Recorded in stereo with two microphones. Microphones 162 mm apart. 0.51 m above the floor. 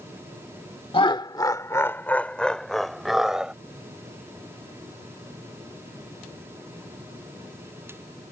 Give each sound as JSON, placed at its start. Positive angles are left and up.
{"t": 0.9, "sound": "laughter", "side_deg": 30}